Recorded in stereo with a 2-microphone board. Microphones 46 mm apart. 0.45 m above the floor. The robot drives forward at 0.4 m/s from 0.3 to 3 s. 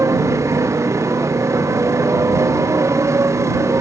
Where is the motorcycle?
85° right.